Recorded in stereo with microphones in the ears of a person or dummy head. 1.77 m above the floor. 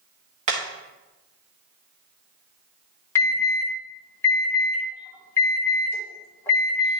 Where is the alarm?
15° left (ahead or behind), 1.7 m.